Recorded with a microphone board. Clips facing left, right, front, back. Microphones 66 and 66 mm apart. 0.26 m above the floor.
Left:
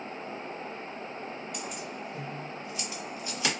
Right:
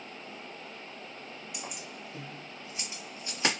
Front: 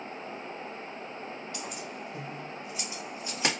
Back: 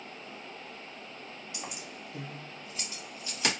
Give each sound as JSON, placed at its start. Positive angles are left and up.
{"t": 1.5, "sound": "keys jangling", "azimuth_deg": -175, "distance_m": 0.8}